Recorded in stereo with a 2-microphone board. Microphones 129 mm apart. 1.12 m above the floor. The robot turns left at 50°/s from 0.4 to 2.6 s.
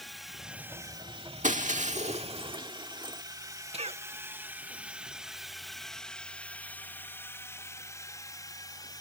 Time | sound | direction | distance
0.0 | a drone | centre (ahead or behind) | ?
1.4 | breaking glass | 80° right | ?
3.7 | a cough | 55° right (ahead or behind) | ?